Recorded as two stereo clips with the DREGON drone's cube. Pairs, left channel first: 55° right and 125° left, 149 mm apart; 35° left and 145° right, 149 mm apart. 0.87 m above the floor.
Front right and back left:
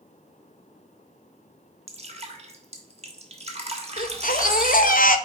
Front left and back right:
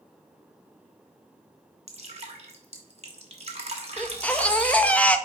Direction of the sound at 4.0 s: 45° right.